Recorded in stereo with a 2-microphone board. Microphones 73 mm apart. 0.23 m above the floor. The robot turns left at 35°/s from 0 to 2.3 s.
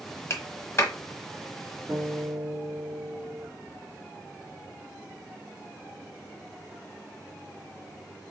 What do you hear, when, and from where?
0.3 s a clap: 40° left (ahead or behind), 1.2 m; by 0.9 s 35° left (ahead or behind), 1.2 m
1.9 s a guitar: 25° right (ahead or behind), 2 m; by 3.5 s 40° right (ahead or behind), 2 m